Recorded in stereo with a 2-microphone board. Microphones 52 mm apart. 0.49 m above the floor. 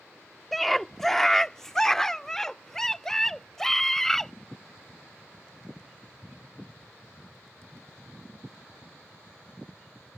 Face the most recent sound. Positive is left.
turn(degrees=10)  # may be behind; listen again after turning